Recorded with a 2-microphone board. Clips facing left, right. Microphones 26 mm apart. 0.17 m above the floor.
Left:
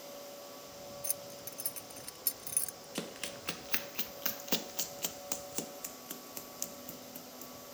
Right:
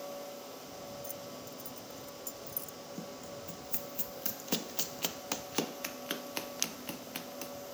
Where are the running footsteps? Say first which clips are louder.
Left 5 dB; 75° left (ahead or behind); by 7.5 s 55° right (ahead or behind).